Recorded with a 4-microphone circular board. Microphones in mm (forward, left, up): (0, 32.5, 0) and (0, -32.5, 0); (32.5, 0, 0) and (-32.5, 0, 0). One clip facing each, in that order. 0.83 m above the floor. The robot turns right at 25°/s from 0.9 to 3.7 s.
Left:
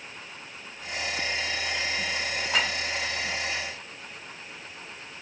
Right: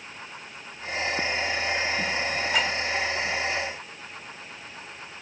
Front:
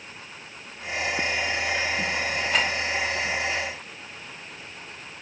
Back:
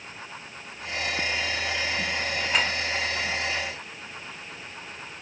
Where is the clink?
95° left, 2.5 m; by 2.7 s 100° left, 2.5 m.